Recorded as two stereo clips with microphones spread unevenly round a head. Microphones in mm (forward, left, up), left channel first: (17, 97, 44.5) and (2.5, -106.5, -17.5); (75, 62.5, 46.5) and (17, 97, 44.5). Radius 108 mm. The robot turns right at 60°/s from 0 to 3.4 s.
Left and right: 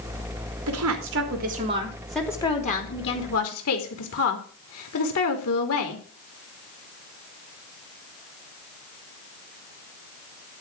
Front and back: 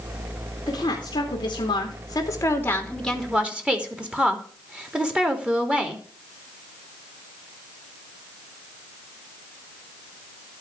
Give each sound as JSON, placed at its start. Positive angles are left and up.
{"t": 0.7, "sound": "a woman speaking", "azimuth_deg": -90, "distance_m": 3.0}